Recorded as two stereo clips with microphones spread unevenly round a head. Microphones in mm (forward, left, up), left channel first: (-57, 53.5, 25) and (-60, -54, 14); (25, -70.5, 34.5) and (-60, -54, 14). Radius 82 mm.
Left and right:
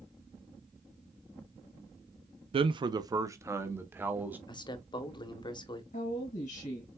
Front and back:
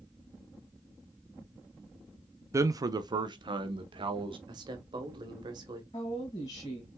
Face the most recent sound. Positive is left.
turn(degrees=55)